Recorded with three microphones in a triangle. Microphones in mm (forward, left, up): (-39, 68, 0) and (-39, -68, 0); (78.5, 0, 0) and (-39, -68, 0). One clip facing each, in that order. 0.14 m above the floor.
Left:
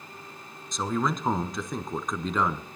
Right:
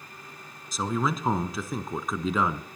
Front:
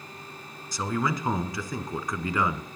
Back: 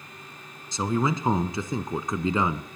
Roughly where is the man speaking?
Behind.